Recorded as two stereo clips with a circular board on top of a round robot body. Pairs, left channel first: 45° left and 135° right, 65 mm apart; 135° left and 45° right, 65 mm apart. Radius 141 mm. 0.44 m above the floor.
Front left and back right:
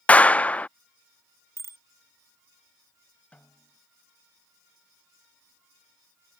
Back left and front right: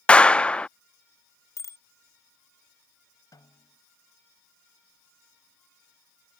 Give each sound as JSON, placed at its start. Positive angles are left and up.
{"t": 0.1, "sound": "a clap", "azimuth_deg": 85}
{"t": 1.6, "sound": "a bicycle bell", "azimuth_deg": 175}
{"t": 3.3, "sound": "a snare drum", "azimuth_deg": 115}